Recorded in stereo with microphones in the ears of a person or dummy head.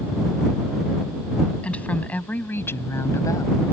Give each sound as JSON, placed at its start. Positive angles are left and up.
{"t": 1.6, "sound": "a woman speaking", "side_deg": 5}